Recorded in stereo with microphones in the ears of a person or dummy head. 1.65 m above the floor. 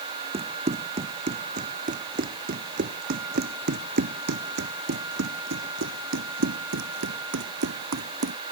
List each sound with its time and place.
0.3 s running footsteps: 30° right (ahead or behind); by 8.4 s 75° right (ahead or behind)